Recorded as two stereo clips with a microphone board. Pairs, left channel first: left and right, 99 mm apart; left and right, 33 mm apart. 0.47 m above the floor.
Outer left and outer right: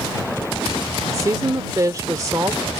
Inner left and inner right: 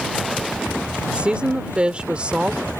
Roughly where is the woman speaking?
Right.